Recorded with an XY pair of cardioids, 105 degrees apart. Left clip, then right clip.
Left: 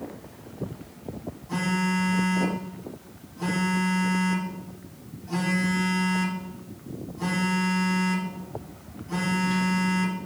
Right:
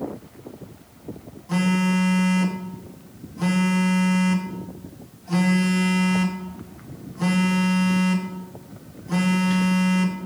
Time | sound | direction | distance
1.5 | a phone buzzing | 55° right | 2.5 m